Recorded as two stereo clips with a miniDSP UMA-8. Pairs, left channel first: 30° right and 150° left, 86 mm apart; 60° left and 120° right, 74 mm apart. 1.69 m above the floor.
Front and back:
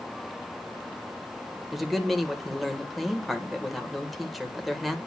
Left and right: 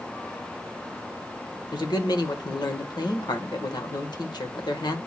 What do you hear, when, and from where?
1.7 s a man speaking: 60° left, 1.3 m